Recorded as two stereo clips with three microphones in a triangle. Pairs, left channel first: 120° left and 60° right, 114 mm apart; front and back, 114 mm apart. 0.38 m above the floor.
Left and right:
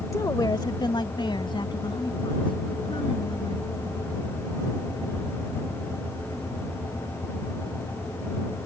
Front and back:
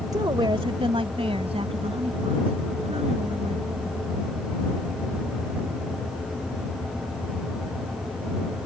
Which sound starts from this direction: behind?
A woman speaking, at 0.1 s.